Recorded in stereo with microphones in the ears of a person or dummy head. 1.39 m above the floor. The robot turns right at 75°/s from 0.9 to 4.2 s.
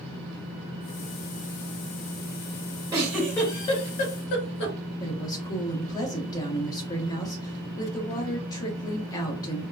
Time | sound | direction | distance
2.9 | a giggle | 20° right (ahead or behind) | 1.3 m
5.0 | a woman speaking | 20° left (ahead or behind) | 0.8 m